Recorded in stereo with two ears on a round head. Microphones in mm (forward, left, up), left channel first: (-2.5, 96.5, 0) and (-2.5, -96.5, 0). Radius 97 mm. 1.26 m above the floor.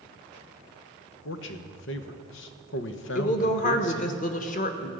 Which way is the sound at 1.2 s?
65° left (ahead or behind).